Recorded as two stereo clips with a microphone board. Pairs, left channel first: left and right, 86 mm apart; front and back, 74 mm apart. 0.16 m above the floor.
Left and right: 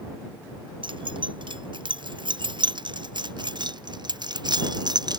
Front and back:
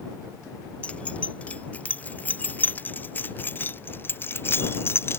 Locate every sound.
0.8 s keys jangling: 70° right; by 5.2 s 55° right